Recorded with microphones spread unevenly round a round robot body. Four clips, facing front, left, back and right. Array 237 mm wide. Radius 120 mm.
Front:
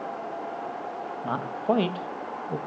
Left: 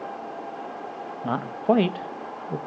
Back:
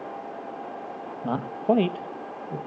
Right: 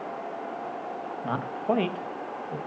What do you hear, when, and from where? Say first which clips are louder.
1.2 s a man speaking: left 5 dB, back 3 dB; 150° left, 1.0 m; by 2.6 s 60° left, 1.0 m